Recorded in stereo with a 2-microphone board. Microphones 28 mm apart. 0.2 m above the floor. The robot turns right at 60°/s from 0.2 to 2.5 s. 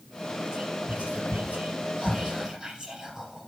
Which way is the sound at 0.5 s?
35° right (ahead or behind).